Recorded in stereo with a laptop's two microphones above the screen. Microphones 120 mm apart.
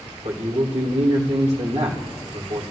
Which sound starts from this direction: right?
A man speaking, at 0.2 s.